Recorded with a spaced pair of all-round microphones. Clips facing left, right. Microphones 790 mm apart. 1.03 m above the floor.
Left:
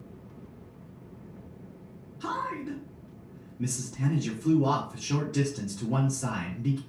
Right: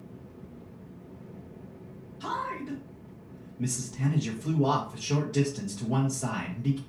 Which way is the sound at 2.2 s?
20° right (ahead or behind).